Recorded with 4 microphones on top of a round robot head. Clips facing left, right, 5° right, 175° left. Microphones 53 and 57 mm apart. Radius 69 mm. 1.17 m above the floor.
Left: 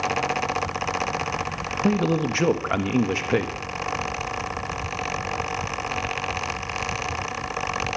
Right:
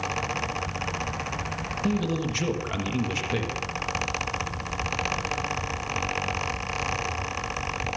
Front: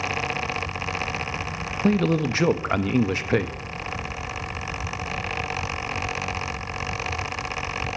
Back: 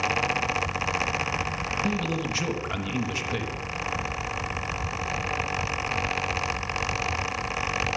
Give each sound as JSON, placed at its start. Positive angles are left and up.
{"t": 1.8, "sound": "a man speaking", "azimuth_deg": 35, "distance_m": 1.5}